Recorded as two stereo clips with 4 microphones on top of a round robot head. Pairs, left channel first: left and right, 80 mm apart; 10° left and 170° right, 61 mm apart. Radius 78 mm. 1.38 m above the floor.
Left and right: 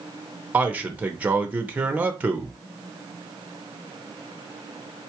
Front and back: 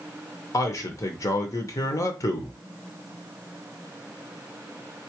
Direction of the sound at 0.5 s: 20° right.